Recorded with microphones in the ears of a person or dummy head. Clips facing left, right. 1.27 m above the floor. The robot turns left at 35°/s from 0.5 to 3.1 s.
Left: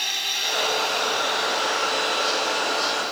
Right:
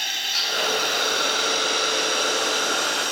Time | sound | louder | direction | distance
0.0 | a drone | left 1 dB | 5° right | ?